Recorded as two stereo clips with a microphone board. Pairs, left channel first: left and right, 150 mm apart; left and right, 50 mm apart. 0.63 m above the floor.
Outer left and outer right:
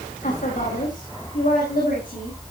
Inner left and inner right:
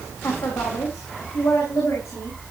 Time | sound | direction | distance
0.2 | a woman speaking | 60° left (ahead or behind) | 3.5 m